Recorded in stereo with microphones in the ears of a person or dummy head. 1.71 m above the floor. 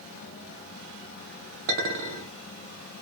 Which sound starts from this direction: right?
A clink, at 1.7 s.